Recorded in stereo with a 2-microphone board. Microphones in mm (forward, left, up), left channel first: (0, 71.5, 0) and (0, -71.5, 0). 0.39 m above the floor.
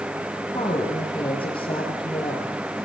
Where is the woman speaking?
35° left (ahead or behind), 7.5 m.